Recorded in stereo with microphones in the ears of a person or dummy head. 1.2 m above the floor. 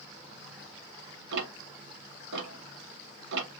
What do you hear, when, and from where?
1.3 s ticking: 70° right (ahead or behind), 1.2 m